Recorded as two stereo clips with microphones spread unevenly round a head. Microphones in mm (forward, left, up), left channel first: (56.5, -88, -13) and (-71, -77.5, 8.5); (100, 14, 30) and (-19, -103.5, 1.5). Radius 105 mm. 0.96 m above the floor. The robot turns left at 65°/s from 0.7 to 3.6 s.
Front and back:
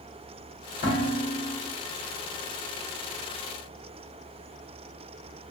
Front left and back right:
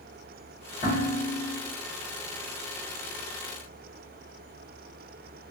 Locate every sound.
0.8 s dishes clattering: 5° right, 1.9 m; by 1.6 s 55° right, 1.9 m